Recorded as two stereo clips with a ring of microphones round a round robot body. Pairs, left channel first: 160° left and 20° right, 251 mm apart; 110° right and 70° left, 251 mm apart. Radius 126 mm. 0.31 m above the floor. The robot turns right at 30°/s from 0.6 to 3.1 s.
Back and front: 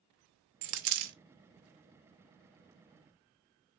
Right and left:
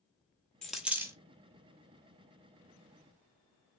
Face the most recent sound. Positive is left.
turn(degrees=50)